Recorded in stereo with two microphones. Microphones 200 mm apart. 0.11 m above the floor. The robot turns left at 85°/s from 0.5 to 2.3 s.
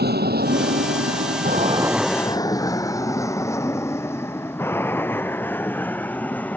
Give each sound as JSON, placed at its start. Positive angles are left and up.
{"t": 0.0, "sound": "an aircraft", "side_deg": -55}